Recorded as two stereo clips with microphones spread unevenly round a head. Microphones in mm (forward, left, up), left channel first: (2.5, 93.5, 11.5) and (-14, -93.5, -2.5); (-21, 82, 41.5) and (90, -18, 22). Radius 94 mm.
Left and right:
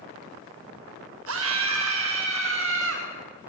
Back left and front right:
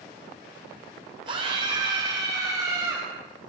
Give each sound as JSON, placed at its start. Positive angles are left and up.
{"t": 1.3, "sound": "a scream", "azimuth_deg": -105, "distance_m": 6.5}